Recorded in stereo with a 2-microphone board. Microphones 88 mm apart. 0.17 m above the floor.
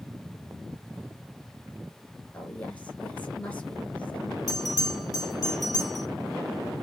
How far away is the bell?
About 4 m.